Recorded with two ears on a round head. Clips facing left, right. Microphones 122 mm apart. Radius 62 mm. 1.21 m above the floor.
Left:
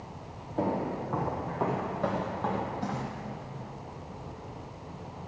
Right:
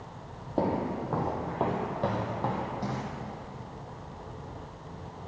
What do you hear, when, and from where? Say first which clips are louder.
0.6 s footsteps: right 1 dB; 50° right (ahead or behind), 3 m; by 3.1 s 5° right (ahead or behind), 3.5 m